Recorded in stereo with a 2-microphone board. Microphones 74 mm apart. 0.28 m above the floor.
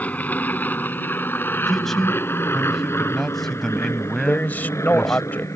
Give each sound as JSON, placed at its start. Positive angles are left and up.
{"t": 0.0, "sound": "an aircraft", "side_deg": 20}
{"t": 1.7, "sound": "a man speaking", "side_deg": 5}
{"t": 4.2, "sound": "a man speaking", "side_deg": 25}